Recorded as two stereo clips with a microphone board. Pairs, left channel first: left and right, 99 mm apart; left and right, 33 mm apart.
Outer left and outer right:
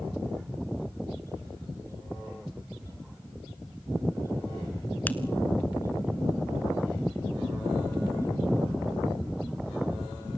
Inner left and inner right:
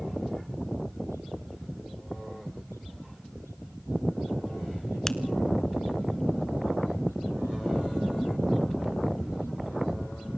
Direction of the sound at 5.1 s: 15° left (ahead or behind).